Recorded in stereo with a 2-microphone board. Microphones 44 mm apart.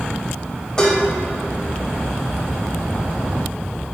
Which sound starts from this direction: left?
Dishes clattering, at 0.8 s.